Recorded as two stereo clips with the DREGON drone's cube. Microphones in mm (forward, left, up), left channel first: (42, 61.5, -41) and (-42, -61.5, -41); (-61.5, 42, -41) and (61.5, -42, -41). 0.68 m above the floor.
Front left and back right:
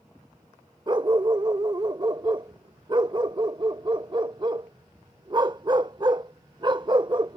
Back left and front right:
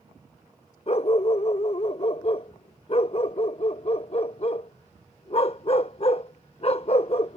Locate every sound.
0.9 s a dog barking: 175° right